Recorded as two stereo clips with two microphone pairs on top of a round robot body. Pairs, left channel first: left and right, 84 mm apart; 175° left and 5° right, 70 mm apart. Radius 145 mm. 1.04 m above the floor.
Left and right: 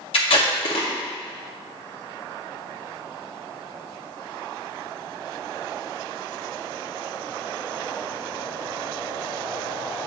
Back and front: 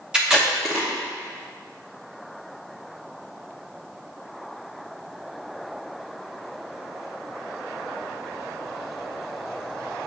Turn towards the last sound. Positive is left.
turn(degrees=80)